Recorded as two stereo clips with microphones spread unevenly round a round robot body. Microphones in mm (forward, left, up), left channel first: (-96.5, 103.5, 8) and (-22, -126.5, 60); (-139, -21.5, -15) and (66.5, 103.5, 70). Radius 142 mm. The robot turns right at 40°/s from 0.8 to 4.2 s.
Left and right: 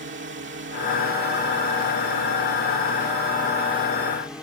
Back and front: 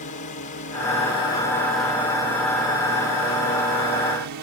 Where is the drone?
115° right; by 4.4 s 25° left.